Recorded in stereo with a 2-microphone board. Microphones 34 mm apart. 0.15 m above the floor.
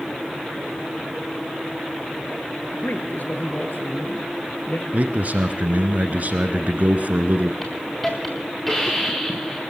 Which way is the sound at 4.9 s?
50° right (ahead or behind).